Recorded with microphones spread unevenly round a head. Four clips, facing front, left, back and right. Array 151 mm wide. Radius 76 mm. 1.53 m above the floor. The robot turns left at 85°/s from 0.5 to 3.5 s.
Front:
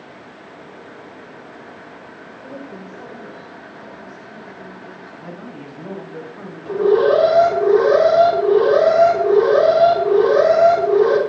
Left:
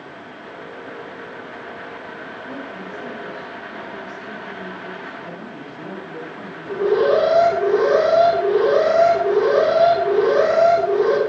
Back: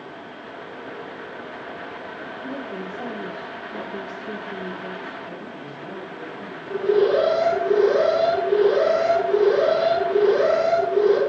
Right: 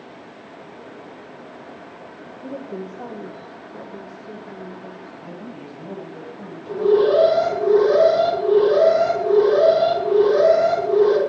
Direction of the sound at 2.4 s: 90° right.